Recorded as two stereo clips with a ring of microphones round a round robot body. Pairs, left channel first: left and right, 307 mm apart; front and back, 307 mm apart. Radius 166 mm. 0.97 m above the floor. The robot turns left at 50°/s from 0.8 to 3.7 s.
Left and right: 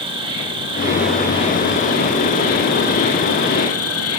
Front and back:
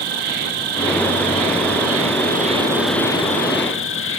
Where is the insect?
165° right, 1.6 m; by 4.2 s 50° left, 1.6 m.